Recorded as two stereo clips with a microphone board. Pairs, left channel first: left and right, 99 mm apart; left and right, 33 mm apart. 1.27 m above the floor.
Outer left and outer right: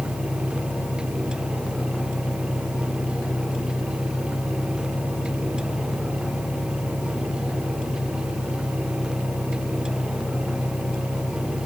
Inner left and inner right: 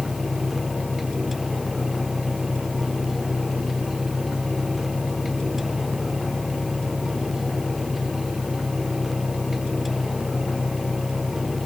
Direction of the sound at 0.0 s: 80° left.